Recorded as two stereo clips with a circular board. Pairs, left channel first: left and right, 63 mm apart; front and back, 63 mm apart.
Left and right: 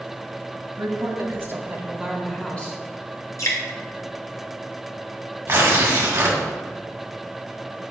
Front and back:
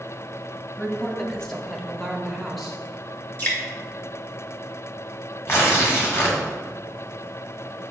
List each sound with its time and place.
0.8 s a woman speaking: 80° right, 1.7 m; by 2.8 s 95° left, 1.1 m
3.4 s dripping: 60° left, 2.5 m
5.5 s tearing paper: 40° right, 1.9 m